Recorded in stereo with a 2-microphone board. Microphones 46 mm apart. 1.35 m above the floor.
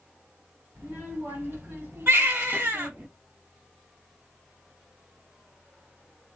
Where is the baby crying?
60° right (ahead or behind), 1.7 m.